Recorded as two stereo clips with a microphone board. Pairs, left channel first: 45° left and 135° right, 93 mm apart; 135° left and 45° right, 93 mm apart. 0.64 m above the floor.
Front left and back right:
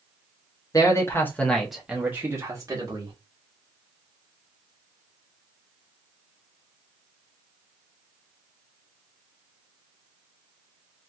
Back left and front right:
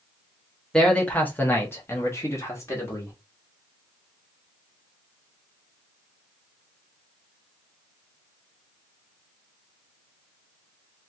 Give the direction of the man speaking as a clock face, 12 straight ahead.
10 o'clock.